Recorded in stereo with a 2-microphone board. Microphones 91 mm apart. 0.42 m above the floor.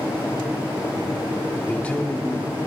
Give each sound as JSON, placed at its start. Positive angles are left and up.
{"t": 1.7, "sound": "a man speaking", "side_deg": 20, "distance_m": 0.8}